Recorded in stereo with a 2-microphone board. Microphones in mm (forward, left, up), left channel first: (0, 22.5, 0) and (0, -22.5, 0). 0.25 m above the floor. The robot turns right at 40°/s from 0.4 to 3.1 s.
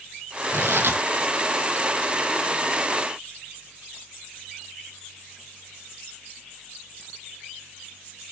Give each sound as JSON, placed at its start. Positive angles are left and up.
{"t": 0.5, "sound": "tearing paper", "side_deg": -75, "distance_m": 1.8}